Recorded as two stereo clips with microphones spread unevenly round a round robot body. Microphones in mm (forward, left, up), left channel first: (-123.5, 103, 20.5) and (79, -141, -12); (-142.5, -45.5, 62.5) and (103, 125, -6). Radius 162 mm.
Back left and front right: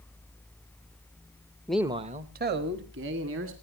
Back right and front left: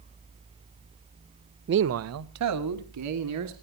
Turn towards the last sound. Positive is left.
turn(degrees=0)